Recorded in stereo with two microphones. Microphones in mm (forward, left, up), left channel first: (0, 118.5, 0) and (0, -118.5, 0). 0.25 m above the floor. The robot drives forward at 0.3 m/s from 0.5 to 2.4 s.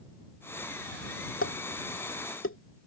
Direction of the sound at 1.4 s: 65° left (ahead or behind).